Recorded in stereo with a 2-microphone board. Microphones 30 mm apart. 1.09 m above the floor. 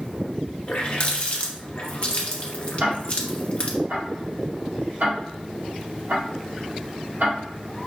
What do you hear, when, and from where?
0.7 s a running tap: 40° left (ahead or behind), 0.9 m
2.8 s ticking: 60° right (ahead or behind), 2.5 m